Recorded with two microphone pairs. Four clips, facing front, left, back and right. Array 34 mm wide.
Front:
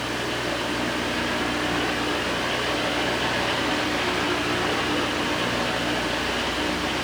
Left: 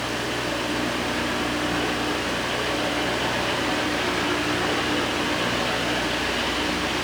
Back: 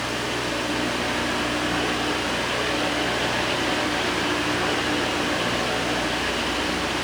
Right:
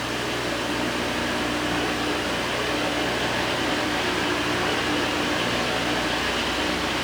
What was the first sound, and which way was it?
Only background noise.